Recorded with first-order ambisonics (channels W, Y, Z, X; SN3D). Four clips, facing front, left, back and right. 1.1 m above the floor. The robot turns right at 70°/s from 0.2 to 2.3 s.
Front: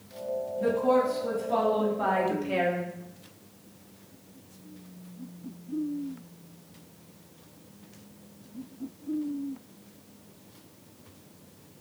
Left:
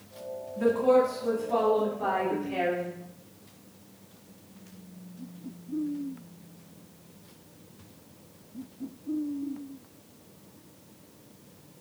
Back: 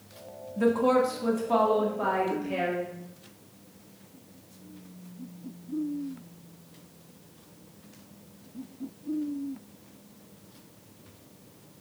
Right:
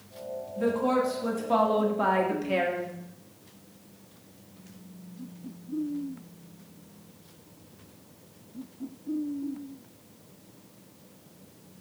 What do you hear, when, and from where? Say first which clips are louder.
0.6 s a woman speaking: left 4 dB, back 2 dB; 170° left, 1.7 m; by 2.9 s 70° right, 1.7 m